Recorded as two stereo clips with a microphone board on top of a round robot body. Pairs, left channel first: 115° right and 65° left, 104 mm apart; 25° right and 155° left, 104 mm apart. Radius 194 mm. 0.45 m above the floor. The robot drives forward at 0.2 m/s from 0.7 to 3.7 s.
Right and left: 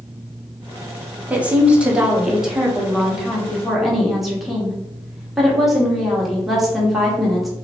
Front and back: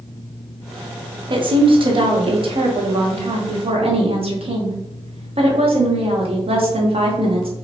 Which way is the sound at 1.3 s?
140° left.